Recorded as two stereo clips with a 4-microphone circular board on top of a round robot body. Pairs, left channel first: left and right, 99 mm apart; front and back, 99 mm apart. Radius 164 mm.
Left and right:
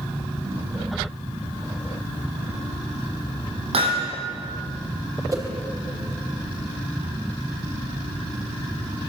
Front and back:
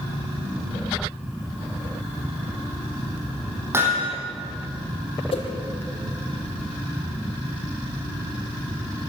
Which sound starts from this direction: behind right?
Hammering, at 3.7 s.